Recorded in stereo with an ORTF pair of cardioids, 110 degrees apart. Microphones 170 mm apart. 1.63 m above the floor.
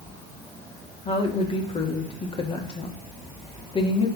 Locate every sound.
1.1 s a woman speaking: 35° left, 1.9 m